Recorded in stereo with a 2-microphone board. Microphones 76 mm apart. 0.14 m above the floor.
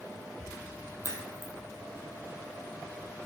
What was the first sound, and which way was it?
A crack, 45° left (ahead or behind).